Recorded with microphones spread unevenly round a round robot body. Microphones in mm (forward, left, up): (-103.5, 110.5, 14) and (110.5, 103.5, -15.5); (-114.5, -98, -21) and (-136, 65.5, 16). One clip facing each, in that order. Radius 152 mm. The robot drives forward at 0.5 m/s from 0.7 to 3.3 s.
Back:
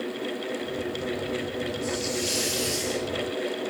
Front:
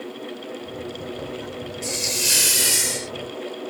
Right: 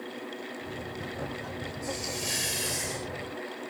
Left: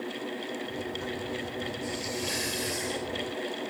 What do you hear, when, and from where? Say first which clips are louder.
1.8 s a hiss: back 2 dB, left 2 dB; 5° right; by 3.1 s 10° right